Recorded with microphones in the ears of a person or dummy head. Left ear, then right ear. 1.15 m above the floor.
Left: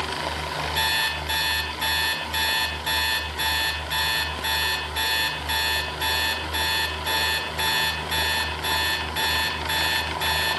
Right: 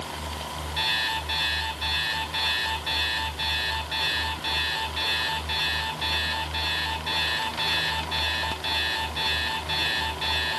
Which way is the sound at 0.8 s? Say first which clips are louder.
Left 1 dB; 50° left (ahead or behind).